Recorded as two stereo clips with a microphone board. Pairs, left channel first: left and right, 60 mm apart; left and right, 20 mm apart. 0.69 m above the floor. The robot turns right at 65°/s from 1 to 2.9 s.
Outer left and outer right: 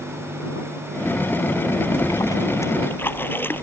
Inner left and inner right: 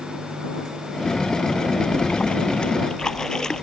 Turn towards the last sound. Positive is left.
turn(degrees=145)